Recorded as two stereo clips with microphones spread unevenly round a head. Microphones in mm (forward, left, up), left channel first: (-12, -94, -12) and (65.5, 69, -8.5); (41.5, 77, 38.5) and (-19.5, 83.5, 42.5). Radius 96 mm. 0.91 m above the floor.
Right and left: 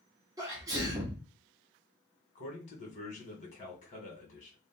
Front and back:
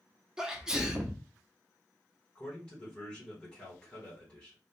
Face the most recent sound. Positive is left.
turn(degrees=-75)